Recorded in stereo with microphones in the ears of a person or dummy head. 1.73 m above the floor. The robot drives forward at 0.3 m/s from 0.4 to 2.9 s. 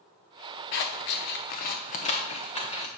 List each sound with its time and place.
0.7 s scissors: 50° left (ahead or behind), 0.6 m; by 2.9 s 30° left (ahead or behind), 0.9 m